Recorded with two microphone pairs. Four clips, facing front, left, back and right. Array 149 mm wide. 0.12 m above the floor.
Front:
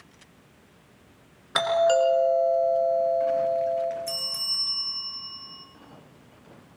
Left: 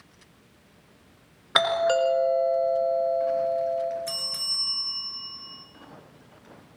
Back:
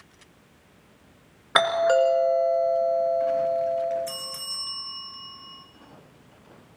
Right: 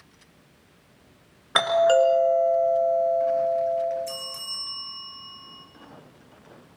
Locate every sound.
1.6 s a doorbell: 175° right, 1.8 m
4.1 s a bell: 105° left, 2 m